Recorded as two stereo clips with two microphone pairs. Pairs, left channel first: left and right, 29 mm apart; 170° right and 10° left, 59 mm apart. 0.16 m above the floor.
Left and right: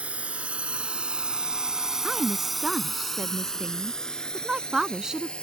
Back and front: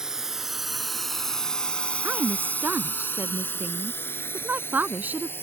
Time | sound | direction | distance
0.0 | a drone | 70° right | ?
2.0 | a woman speaking | 35° right | ?